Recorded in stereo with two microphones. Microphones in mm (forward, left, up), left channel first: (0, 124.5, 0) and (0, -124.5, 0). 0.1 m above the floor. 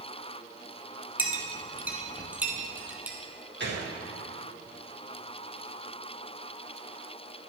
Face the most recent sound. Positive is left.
turn(degrees=-45)  # may be behind; listen again after turning